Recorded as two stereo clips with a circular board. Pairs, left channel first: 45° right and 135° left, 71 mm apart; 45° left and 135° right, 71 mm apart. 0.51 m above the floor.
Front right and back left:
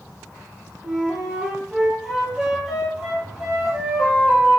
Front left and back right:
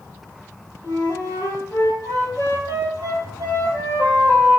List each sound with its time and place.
0.8 s a flute: 45° left, 3.5 m